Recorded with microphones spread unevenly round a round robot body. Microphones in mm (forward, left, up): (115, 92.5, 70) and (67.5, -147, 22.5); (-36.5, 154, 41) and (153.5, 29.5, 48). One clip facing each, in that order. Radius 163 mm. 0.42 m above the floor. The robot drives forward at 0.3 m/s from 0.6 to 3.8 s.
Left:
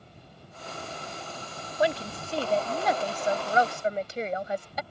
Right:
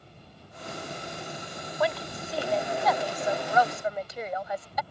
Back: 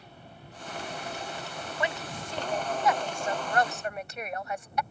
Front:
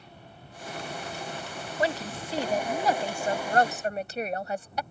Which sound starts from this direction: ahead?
A woman speaking, at 1.8 s.